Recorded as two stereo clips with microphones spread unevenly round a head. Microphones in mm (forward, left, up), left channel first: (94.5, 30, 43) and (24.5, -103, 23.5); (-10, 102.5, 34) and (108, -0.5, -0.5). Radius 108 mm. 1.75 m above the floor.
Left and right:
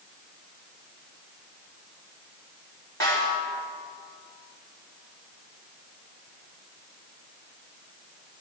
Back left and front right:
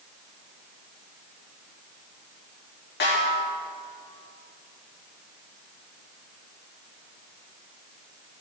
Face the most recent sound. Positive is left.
turn(degrees=135)